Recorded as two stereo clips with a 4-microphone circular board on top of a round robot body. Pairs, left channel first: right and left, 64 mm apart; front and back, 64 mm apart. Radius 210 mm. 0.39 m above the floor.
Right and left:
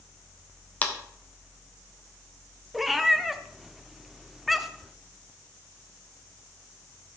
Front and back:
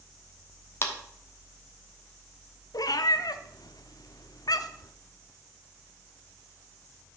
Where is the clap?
30° right, 1.5 m.